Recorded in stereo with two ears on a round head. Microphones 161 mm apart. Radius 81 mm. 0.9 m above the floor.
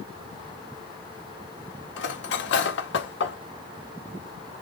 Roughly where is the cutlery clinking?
Left.